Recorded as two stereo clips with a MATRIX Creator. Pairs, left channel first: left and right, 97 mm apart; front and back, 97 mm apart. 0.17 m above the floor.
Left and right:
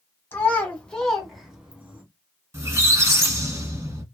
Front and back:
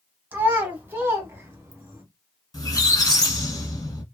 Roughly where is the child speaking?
Behind left.